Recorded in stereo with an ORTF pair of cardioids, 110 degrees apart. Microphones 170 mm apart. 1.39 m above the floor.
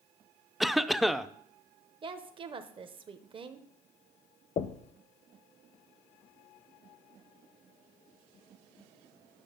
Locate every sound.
0.6 s a cough: straight ahead, 0.5 m
2.0 s a woman speaking: 30° right, 0.8 m
4.6 s knocking: 40° left, 0.7 m